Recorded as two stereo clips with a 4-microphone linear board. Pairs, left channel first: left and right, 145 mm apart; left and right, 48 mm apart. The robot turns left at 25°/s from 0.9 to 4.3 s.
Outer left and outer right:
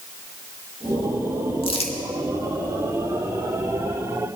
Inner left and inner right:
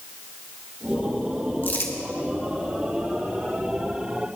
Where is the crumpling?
40° left (ahead or behind), 1.9 m; by 1.9 s 45° left (ahead or behind), 1.9 m.